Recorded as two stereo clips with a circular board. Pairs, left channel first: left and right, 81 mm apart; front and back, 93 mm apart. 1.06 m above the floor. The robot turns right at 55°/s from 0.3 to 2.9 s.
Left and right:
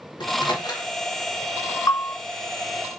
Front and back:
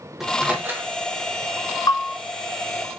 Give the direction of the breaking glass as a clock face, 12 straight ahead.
I don't hear breaking glass.